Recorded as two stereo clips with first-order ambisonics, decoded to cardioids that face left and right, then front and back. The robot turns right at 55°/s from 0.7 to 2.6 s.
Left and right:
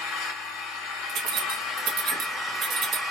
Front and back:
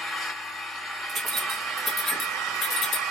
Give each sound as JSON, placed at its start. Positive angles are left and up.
{"t": 0.0, "sound": "an engine running", "azimuth_deg": 80, "distance_m": 1.2}
{"t": 1.1, "sound": "keys jangling", "azimuth_deg": -125, "distance_m": 1.0}